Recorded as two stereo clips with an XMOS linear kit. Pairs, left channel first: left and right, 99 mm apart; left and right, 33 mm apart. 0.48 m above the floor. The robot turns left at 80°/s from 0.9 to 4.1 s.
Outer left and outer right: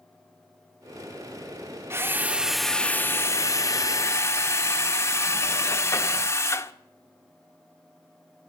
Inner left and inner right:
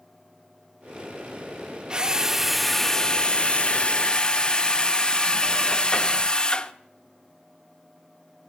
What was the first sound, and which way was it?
A drill, 125° right.